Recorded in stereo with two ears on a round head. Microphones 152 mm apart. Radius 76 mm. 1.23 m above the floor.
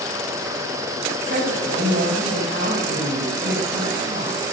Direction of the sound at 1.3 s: 55° right (ahead or behind).